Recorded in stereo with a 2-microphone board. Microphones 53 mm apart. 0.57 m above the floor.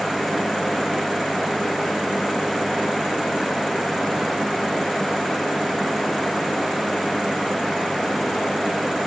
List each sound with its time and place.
Only background noise.